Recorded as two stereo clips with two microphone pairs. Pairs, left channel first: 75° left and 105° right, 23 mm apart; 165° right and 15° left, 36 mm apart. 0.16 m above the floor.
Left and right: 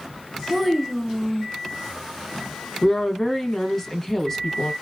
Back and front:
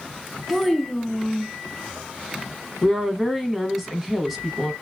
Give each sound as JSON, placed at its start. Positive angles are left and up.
{"t": 0.5, "sound": "a child speaking", "azimuth_deg": -50, "distance_m": 0.6}
{"t": 2.8, "sound": "a woman speaking", "azimuth_deg": 90, "distance_m": 1.0}